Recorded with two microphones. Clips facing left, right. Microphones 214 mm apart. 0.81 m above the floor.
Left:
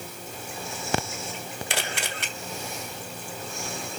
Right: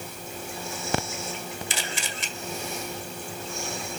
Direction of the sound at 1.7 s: 65° left (ahead or behind).